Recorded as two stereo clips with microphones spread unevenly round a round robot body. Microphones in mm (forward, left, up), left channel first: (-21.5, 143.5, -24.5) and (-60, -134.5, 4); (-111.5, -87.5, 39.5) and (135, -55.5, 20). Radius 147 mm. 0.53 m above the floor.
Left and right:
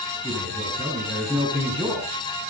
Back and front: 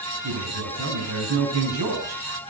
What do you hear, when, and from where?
0.2 s a man speaking: straight ahead, 4.5 m